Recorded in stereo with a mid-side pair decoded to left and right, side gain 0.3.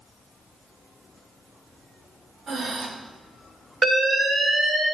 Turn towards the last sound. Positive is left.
turn(degrees=-70)